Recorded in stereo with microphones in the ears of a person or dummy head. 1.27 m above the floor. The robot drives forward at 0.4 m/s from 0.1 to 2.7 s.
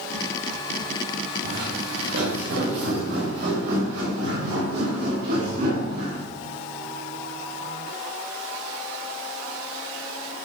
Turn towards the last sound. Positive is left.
turn(degrees=-50)  # may be behind; listen again after turning